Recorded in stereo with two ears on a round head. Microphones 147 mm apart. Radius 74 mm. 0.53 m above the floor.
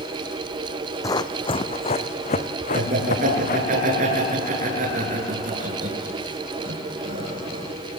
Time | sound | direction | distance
1.0 | running footsteps | 20° left (ahead or behind) | 1.1 m
2.7 | laughter | 50° right (ahead or behind) | 7.5 m